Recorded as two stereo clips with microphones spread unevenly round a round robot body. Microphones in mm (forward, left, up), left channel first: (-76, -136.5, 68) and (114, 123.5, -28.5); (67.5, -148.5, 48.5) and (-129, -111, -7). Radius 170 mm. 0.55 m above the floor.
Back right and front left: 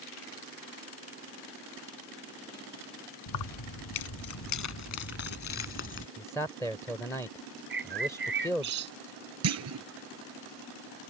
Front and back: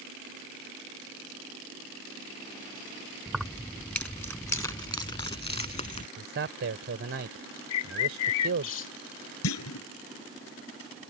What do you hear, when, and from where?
3.3 s keys jangling: 100° right; by 6.1 s 65° right
6.2 s a man speaking: 145° left
7.7 s a bird: 10° right
9.4 s a clunk: 15° left